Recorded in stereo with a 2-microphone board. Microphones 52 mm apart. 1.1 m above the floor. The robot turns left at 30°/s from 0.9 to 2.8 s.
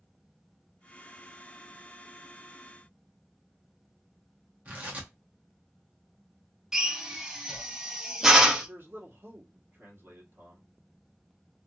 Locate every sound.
4.7 s tearing paper: 30° right (ahead or behind), 1.2 m
6.7 s a drill: 10° right (ahead or behind), 0.7 m
8.7 s a man speaking: 40° right (ahead or behind), 1.2 m